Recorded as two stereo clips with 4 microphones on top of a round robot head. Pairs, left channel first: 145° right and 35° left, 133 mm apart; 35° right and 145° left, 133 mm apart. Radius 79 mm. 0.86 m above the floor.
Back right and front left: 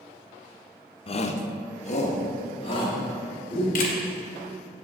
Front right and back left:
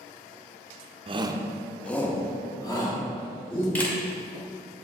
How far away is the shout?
About 0.7 m.